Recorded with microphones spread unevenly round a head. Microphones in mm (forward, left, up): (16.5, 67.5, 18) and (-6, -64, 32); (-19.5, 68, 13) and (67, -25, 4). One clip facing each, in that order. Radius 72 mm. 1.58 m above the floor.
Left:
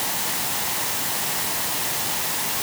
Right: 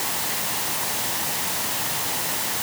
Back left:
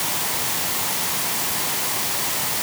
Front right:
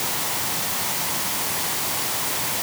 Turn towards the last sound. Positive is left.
No sound to turn to.